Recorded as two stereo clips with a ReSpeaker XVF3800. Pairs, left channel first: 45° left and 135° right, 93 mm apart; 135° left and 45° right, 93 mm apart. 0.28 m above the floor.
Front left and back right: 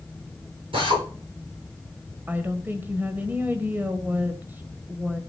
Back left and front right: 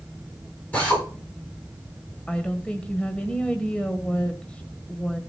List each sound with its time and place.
0.7 s a drill: 155° right, 10 m
2.3 s a woman speaking: 165° right, 1.1 m